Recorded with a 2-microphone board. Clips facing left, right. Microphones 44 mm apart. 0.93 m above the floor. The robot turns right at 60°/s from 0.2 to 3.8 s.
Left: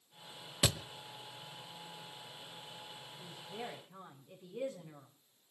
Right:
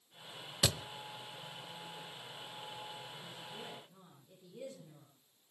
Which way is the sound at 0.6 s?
20° left (ahead or behind).